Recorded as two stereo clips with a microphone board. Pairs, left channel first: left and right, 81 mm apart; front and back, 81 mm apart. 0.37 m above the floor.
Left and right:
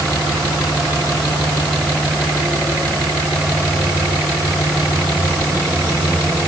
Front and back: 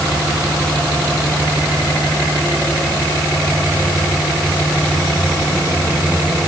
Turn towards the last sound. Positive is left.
No sound to turn to.